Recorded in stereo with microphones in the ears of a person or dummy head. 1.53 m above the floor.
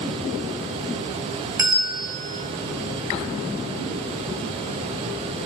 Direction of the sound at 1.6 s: 15° right (ahead or behind).